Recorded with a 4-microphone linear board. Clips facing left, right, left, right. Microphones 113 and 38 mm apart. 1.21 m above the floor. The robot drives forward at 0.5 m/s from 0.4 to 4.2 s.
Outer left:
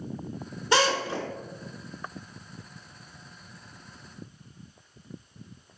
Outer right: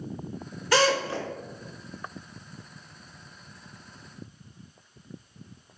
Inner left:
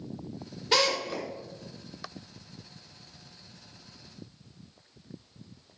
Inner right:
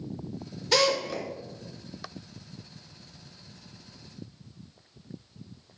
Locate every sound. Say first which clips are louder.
0.7 s a drill: outer right 1 dB, inner right 2 dB; 25° left (ahead or behind), 3.5 m; by 1.3 s 20° left (ahead or behind), 4 m